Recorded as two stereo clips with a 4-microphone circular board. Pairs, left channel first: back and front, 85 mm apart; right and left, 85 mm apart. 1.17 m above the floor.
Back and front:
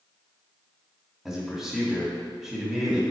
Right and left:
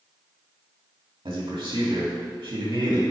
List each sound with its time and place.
1.2 s a man speaking: 90° left, 1.9 m